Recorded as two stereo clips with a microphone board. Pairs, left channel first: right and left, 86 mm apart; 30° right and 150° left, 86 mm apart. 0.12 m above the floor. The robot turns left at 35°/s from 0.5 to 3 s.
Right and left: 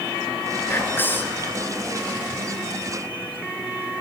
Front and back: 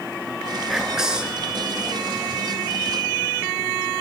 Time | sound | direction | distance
0.7 | whispering | 120° right | 1.2 m